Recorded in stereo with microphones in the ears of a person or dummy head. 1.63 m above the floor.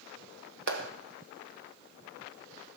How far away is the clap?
About 1.1 m.